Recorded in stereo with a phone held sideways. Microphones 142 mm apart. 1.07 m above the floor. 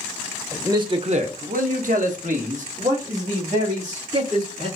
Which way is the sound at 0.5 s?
15° right (ahead or behind).